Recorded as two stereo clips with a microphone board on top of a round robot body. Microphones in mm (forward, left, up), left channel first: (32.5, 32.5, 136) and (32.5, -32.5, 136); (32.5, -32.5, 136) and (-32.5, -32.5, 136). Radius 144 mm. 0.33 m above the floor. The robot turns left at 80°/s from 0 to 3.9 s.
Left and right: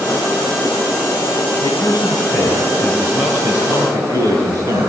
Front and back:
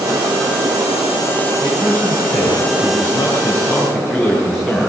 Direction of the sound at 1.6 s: 95° left.